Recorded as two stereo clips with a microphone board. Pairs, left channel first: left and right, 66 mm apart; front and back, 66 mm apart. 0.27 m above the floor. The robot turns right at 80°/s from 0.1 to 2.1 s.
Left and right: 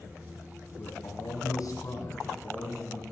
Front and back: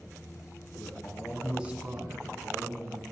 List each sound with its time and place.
0.8 s a man speaking: 40° left, 2.5 m; by 3.1 s 145° left, 2.5 m